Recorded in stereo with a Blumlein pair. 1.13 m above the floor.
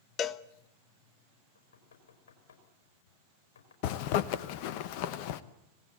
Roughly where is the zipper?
Ahead left.